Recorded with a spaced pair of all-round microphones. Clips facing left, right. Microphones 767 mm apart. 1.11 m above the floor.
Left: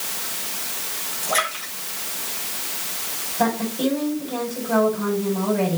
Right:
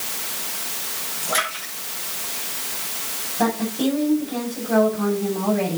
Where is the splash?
45° right (ahead or behind), 9 m.